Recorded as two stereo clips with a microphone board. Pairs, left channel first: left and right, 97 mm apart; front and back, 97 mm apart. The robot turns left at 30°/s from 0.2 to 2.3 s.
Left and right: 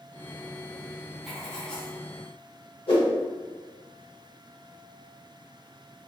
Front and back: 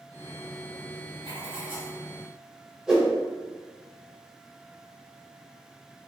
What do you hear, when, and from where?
1.2 s writing: straight behind, 0.7 m; by 2.0 s 160° left, 0.7 m
2.9 s a whoosh: 95° left, 0.9 m